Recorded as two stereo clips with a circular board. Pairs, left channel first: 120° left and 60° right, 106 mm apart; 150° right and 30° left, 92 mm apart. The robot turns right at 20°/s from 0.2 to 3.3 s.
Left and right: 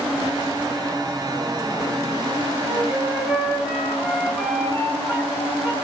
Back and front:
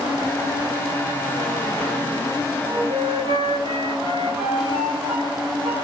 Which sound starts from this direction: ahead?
A flute, at 2.7 s.